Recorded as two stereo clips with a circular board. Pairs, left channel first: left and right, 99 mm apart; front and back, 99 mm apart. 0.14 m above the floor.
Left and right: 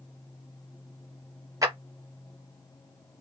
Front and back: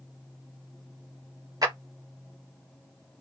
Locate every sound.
1.6 s a clap: 140° right, 2.5 m